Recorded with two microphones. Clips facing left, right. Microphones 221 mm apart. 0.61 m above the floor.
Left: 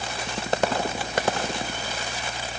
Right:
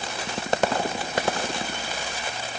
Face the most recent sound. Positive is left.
No sound to turn to.